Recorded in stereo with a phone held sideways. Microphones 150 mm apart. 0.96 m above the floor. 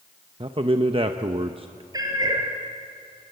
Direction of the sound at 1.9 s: 25° right (ahead or behind).